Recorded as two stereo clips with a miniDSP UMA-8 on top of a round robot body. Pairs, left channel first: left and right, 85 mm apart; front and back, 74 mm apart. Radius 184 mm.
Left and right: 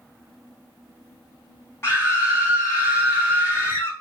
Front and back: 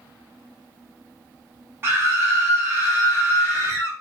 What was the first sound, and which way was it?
A scream, 135° left.